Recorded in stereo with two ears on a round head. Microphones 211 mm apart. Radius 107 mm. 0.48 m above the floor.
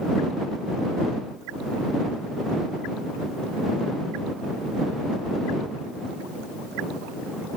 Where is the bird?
I don't hear a bird.